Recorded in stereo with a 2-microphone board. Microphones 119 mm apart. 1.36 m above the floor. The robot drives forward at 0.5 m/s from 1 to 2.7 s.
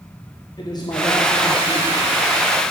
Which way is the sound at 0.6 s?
35° left (ahead or behind).